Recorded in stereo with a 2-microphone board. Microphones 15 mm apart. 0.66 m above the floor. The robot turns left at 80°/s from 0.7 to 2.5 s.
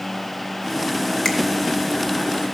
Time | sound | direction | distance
1.2 | a finger snap | 35° left (ahead or behind) | 1.3 m